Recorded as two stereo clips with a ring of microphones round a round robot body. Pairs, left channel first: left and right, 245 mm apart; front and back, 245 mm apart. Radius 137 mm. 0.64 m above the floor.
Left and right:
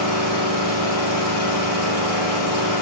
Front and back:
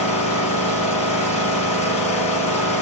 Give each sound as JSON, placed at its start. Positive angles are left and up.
{"t": 0.0, "sound": "an engine running", "azimuth_deg": 65, "distance_m": 5.5}